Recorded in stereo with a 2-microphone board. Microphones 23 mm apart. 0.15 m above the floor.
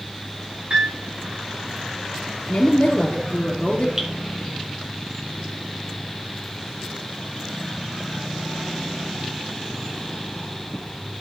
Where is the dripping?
25° right (ahead or behind), 1.9 m.